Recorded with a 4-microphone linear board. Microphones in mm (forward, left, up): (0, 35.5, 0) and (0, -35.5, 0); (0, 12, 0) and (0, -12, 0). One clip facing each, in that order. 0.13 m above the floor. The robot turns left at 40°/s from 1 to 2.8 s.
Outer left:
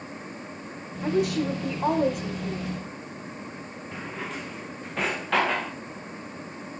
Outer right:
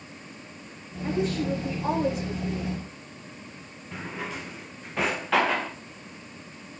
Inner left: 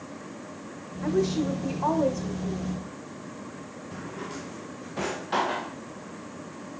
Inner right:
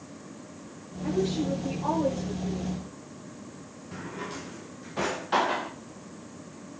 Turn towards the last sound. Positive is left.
turn(degrees=0)  # may be behind; listen again after turning